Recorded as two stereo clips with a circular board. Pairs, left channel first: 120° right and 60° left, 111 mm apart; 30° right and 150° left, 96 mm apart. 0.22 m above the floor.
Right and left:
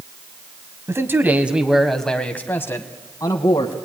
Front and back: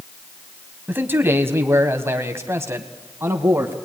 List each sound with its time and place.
0.9 s a man speaking: 100° left, 1.7 m; by 3.8 s 150° right, 2 m